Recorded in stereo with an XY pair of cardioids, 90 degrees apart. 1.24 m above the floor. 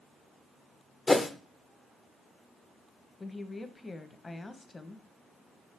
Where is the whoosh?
20° left, 0.8 m.